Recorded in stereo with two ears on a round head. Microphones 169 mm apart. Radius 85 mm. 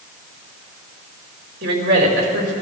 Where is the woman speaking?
50° right (ahead or behind), 6.5 m.